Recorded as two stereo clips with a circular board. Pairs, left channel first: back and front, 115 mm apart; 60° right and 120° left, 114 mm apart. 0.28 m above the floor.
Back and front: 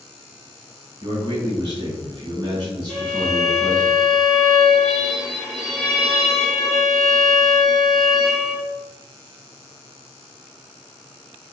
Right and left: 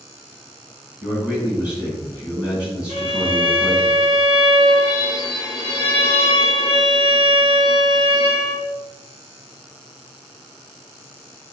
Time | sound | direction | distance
1.0 | a man speaking | 45° left | 1.8 m
2.9 | a violin | 90° left | 1.9 m